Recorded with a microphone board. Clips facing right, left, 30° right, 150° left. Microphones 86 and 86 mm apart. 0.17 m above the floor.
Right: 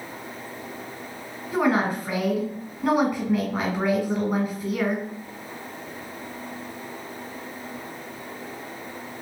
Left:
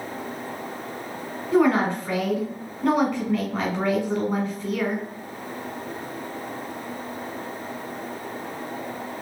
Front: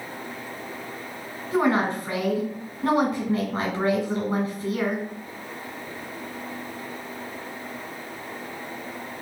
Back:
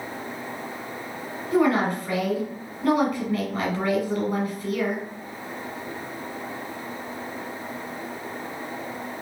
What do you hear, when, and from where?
1.5 s a woman speaking: 20° right, 1.2 m